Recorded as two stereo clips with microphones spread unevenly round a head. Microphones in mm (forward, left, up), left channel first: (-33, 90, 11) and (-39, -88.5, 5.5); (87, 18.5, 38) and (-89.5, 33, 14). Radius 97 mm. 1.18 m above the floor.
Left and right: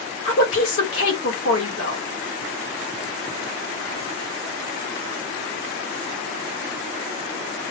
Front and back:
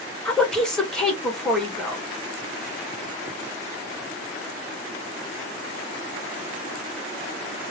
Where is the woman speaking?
80° left, 1.4 m.